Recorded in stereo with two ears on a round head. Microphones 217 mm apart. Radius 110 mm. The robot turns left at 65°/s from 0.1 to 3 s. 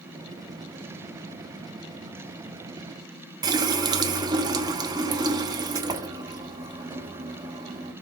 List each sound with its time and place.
3.4 s a running tap: 15° right (ahead or behind), 0.7 m